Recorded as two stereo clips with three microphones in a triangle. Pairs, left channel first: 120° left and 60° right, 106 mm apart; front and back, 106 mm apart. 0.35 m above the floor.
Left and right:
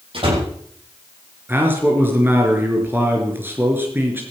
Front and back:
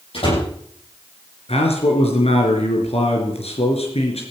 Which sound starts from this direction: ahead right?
A door slam, at 0.1 s.